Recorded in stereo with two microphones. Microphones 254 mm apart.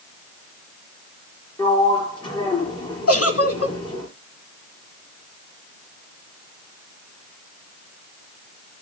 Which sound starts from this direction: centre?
A sliding door, at 1.6 s.